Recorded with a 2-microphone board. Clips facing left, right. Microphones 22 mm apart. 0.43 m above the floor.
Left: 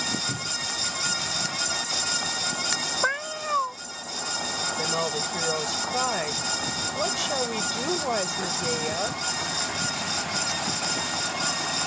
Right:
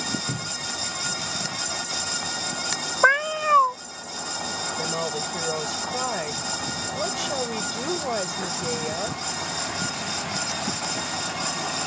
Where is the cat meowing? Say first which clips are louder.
Right 8 dB; 35° right (ahead or behind).